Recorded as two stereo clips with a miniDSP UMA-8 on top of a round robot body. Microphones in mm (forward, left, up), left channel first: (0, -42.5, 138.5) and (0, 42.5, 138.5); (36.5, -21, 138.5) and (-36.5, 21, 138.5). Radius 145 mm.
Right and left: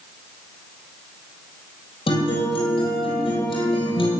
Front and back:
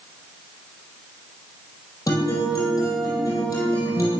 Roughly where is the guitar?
Right.